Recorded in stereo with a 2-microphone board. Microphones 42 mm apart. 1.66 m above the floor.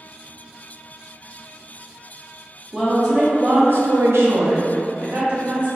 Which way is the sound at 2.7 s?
10° right (ahead or behind).